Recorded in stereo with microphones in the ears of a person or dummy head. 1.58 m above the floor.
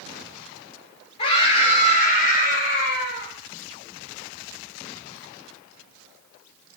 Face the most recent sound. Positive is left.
turn(degrees=65)  # may be behind; listen again after turning